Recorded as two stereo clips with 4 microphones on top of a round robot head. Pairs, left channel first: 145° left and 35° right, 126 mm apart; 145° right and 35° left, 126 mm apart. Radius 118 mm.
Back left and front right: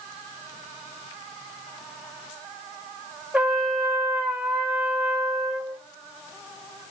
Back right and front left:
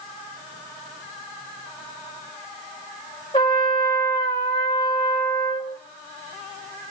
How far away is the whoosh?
No whoosh in this recording.